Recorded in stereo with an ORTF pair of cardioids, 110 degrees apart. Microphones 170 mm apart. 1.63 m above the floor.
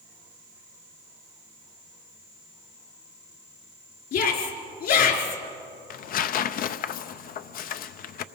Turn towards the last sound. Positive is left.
turn(degrees=55)